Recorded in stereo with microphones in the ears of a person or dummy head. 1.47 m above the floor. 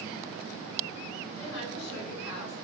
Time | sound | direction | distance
1.4 | a woman speaking | 60° left (ahead or behind) | 5.5 m